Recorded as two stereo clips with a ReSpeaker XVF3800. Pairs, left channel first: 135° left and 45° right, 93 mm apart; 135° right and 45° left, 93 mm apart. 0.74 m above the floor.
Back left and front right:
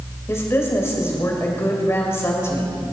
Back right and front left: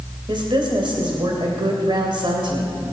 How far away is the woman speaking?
About 2.5 m.